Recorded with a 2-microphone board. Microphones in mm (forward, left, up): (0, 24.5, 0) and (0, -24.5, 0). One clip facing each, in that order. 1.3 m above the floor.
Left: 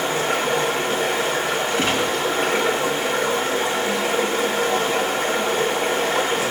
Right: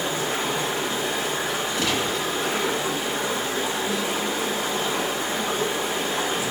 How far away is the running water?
About 3 m.